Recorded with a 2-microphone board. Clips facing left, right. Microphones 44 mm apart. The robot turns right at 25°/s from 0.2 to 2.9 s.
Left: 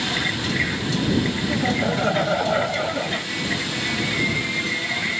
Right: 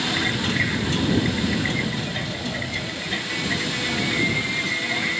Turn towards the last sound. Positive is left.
turn(degrees=115)